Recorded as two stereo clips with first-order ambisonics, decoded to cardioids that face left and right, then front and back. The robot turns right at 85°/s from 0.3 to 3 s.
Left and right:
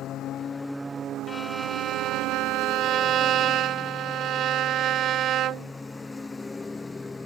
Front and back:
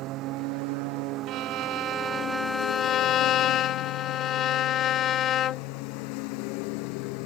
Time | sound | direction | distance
0.0 | a lawn mower | 140° left | ?
1.3 | a violin | 165° left | ?